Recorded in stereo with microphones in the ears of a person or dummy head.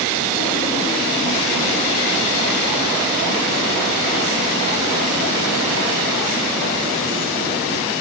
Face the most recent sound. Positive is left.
No sound to turn to.